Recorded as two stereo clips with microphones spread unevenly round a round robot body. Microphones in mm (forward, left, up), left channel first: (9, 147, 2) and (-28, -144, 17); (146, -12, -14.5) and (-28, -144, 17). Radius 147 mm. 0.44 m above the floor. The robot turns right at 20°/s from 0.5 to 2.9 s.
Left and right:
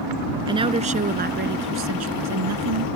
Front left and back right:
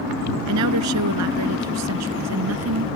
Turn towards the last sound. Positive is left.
turn(degrees=-125)